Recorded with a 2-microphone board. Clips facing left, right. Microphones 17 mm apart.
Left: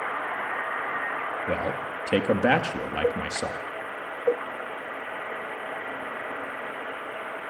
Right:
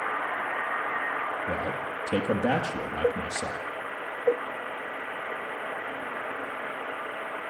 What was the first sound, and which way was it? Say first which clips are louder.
A man speaking: left 2 dB; 55° left (ahead or behind).